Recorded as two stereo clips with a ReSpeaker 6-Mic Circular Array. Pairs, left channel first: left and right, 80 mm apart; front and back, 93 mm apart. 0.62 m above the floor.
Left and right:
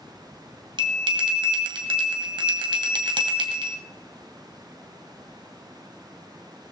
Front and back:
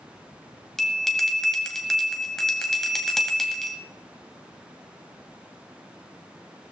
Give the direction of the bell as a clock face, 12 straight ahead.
3 o'clock.